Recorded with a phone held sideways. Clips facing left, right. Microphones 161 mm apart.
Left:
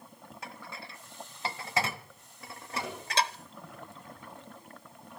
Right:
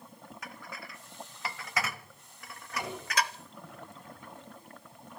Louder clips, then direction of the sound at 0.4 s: Left 2 dB; 25° left (ahead or behind).